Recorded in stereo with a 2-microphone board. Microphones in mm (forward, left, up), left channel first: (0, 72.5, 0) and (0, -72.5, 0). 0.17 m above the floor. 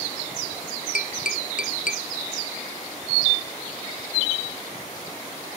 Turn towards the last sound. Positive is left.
turn(degrees=70)  # may be behind; listen again after turning